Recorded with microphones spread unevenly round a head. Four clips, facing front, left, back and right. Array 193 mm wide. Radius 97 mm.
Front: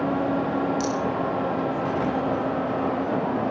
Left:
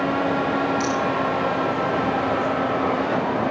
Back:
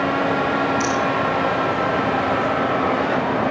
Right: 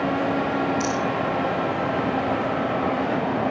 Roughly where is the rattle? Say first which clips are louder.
Left 2 dB, back 5 dB; ahead left.